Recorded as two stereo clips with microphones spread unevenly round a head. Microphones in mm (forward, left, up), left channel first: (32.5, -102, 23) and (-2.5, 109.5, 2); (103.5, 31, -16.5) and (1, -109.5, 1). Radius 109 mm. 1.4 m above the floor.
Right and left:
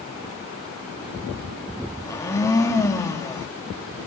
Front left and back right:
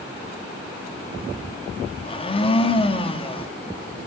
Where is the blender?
5° right, 3.5 m.